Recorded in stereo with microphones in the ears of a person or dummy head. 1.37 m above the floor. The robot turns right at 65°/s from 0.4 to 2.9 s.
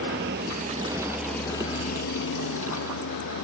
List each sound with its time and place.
0.0 s a vehicle: 55° right; by 3.5 s 110° left